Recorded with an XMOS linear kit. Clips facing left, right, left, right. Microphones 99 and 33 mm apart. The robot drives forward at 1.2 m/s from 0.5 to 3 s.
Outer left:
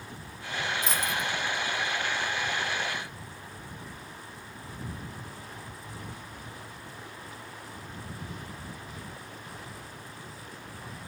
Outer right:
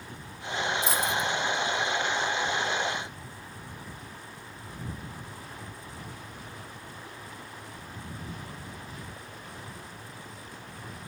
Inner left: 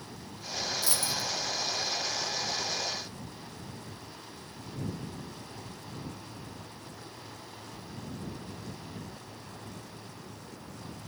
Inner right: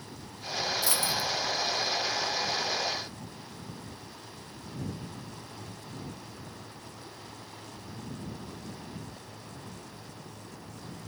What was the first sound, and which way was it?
A dropped coin, 5° right (ahead or behind).